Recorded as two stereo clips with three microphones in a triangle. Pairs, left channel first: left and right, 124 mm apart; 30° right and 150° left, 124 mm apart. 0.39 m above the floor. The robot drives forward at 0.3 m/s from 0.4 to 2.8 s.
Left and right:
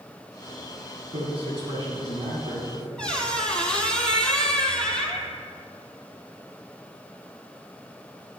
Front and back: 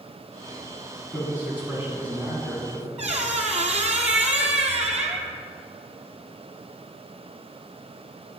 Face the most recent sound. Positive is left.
turn(degrees=170)